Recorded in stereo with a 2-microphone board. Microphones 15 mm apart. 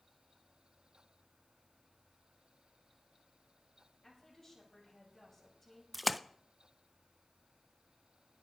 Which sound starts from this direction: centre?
A splash, at 5.9 s.